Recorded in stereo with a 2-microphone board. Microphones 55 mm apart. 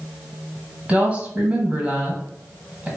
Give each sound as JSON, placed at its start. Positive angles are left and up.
{"t": 0.9, "sound": "a woman speaking", "side_deg": -25, "distance_m": 1.3}